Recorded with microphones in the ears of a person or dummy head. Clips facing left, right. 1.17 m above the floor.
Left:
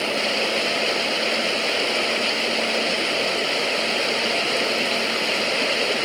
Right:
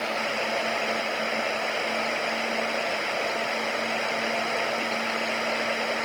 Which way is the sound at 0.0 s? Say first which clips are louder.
Left 5 dB; 50° left (ahead or behind).